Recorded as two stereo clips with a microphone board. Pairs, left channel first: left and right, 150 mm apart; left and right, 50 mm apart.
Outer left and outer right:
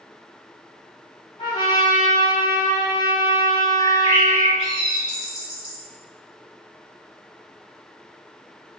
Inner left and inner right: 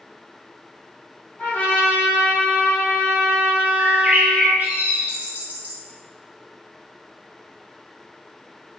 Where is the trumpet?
35° left (ahead or behind), 1.0 m.